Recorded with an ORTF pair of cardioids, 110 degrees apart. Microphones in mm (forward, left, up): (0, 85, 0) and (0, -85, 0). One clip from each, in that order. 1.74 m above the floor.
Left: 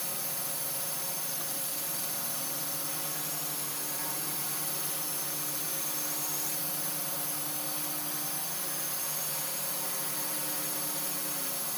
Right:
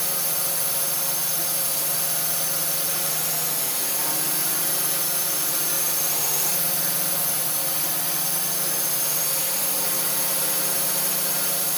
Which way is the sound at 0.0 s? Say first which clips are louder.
Right 9 dB; 60° right.